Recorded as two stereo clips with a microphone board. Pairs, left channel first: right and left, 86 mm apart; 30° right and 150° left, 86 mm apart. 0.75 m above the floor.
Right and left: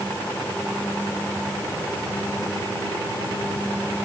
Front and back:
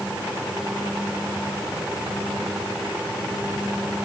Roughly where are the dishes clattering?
No dishes clattering in this recording.